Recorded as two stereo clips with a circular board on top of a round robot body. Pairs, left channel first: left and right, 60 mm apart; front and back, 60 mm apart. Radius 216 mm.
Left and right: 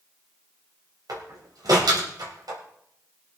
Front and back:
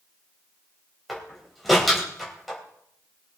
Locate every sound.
1.1 s a door slam: 90° right, 3 m